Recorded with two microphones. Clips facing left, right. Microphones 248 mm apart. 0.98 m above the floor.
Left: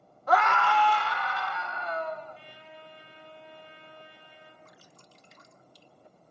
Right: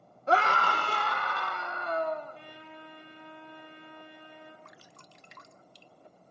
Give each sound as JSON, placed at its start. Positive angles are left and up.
{"t": 0.3, "sound": "a scream", "side_deg": -25, "distance_m": 0.8}
{"t": 2.3, "sound": "a trumpet", "side_deg": -55, "distance_m": 4.5}
{"t": 4.7, "sound": "dripping", "side_deg": -70, "distance_m": 0.9}